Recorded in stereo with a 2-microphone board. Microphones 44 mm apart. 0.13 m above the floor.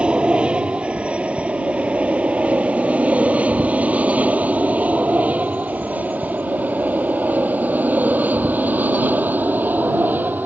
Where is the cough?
I don't hear a cough.